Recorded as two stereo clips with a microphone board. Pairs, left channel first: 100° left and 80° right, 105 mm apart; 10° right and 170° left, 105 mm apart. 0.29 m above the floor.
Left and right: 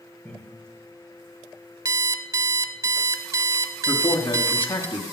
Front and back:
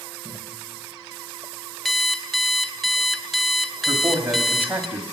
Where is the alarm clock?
100° right, 0.7 m.